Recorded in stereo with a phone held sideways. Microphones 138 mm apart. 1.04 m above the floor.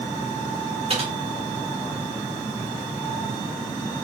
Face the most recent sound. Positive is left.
turn(degrees=-45)  # may be behind; listen again after turning